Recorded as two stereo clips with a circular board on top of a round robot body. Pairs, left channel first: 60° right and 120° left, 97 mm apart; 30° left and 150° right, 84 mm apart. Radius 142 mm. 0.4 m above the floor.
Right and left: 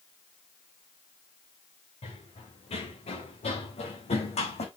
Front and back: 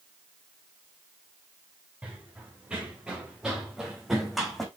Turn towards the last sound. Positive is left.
turn(degrees=-60)